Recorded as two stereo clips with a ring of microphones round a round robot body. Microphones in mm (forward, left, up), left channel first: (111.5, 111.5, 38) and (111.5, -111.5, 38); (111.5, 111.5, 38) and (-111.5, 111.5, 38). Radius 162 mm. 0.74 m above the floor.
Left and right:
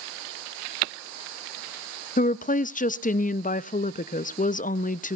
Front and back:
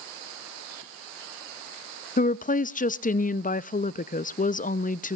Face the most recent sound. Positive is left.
turn(degrees=45)